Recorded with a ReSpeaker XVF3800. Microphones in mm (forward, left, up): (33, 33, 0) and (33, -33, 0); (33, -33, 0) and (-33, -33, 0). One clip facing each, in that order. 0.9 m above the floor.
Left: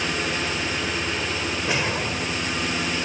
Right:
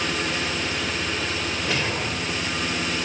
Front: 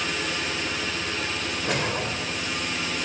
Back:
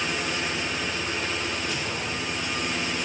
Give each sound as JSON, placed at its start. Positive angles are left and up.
{"t": 1.6, "sound": "a whoosh", "azimuth_deg": 20, "distance_m": 2.0}